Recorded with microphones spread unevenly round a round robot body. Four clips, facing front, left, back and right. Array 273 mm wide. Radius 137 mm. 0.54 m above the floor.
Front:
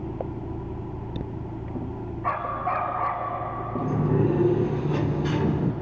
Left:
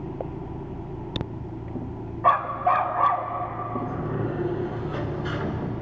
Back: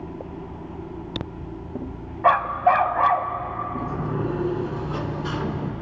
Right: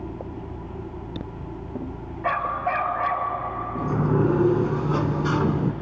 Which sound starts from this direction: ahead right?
A sliding door, at 3.8 s.